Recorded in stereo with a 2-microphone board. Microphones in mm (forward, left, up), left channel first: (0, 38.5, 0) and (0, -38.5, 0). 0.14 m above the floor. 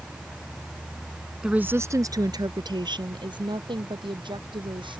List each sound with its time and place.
1.4 s a woman speaking: 10° right (ahead or behind); by 5.0 s 75° right (ahead or behind)